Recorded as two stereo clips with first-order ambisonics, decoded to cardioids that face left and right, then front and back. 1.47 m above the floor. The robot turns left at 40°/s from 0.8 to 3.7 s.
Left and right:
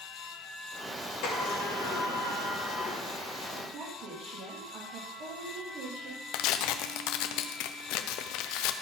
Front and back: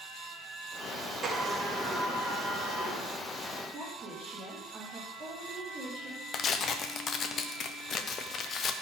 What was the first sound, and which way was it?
A sliding door, 105° left.